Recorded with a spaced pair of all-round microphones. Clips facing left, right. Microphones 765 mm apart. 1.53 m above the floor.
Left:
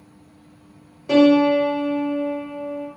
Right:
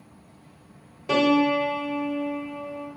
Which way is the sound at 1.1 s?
30° right (ahead or behind).